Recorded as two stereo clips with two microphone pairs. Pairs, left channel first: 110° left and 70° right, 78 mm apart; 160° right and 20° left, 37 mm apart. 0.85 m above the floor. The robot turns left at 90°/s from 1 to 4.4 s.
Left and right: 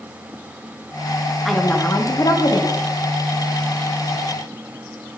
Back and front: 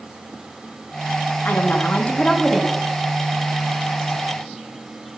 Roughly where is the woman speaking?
Behind right.